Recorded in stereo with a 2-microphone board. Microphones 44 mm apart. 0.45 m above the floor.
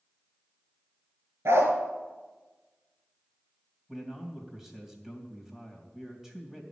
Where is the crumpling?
No crumpling in this recording.